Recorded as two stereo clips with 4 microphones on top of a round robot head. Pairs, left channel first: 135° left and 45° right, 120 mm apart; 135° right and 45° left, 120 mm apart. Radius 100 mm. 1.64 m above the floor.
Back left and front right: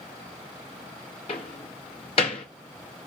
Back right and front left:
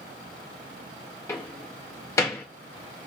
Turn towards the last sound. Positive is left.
turn(degrees=165)